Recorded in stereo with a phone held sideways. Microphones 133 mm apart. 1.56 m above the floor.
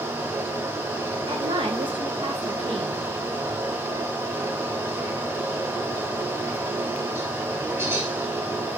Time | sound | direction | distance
0.0 | a fan | 15° right (ahead or behind) | 0.9 m
1.3 | a woman speaking | 35° right (ahead or behind) | 0.9 m